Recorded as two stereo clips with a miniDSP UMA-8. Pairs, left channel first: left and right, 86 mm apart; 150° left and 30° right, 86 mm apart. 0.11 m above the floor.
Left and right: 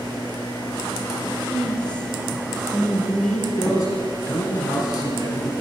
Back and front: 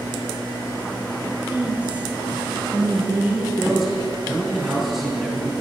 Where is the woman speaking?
25° left, 1.2 m.